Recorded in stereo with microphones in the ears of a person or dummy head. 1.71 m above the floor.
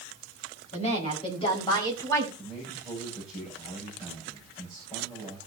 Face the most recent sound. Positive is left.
turn(degrees=25)  # may be behind; listen again after turning